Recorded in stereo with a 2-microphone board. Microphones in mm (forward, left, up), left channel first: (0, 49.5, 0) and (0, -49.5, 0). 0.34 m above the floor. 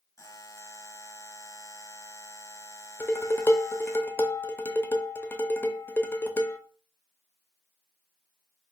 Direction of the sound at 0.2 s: 30° left (ahead or behind).